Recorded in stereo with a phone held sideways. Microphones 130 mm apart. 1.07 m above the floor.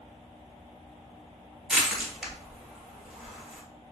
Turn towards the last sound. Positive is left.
turn(degrees=-5)  # may be behind; listen again after turning